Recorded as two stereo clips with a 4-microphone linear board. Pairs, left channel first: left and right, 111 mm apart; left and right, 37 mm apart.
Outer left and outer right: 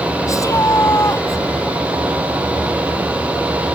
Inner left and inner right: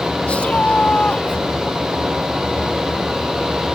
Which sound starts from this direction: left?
A shout, at 0.3 s.